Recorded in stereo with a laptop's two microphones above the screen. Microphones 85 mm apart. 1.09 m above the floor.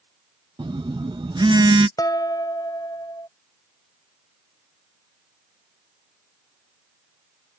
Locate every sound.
0.6 s a phone buzzing: 65° right (ahead or behind)
2.0 s dishes clattering: 45° left (ahead or behind)